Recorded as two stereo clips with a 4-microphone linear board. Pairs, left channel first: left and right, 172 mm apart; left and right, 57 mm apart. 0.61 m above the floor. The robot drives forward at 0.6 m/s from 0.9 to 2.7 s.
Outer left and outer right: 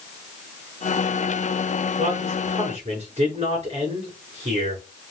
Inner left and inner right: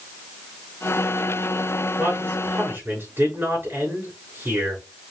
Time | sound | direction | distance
2.0 | a man speaking | 45° right (ahead or behind) | 5.5 m